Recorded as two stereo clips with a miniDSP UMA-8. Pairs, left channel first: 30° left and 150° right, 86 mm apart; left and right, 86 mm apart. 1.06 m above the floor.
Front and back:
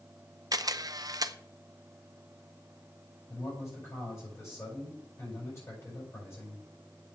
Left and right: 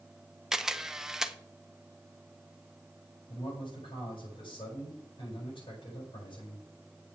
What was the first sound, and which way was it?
A camera shutter, 170° right.